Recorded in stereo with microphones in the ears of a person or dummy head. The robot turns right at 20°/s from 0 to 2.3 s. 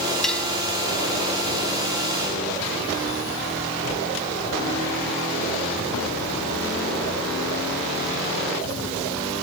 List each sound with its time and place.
0.2 s cutlery clinking: 5° left (ahead or behind); by 0.5 s 10° left (ahead or behind)